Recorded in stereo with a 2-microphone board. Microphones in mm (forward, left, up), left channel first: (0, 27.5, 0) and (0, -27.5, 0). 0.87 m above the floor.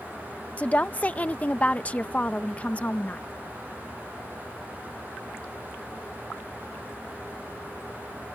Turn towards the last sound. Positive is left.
turn(degrees=25)  # may be behind; listen again after turning